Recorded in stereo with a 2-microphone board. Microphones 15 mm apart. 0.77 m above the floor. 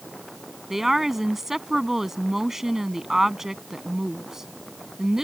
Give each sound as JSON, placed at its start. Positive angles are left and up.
{"t": 0.7, "sound": "a woman speaking", "side_deg": -20}